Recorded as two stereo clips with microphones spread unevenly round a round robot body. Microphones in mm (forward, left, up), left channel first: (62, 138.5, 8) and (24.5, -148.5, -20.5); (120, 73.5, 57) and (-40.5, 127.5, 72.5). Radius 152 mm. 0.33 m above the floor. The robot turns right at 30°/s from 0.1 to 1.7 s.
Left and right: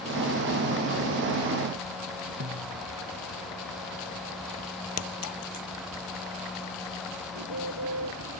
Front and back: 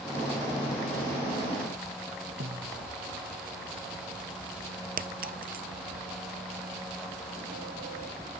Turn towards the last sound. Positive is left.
turn(degrees=-140)